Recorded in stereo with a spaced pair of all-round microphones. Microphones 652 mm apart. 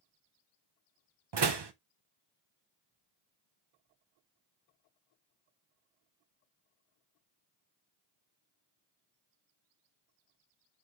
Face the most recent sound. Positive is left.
turn(degrees=-45)  # may be behind; listen again after turning